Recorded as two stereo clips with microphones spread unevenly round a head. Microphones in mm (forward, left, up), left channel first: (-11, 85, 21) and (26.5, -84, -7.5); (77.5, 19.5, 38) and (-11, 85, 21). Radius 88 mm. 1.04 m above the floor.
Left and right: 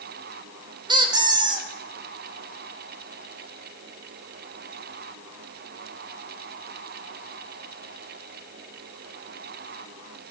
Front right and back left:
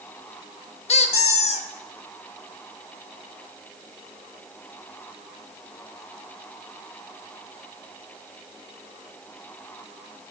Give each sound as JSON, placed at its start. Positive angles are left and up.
{"t": 0.9, "sound": "a squeak", "azimuth_deg": -10, "distance_m": 1.0}